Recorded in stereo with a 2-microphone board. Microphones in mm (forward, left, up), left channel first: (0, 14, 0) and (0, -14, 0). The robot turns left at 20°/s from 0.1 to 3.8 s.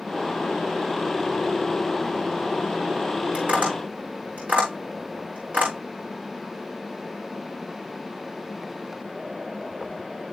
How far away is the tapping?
About 7 m.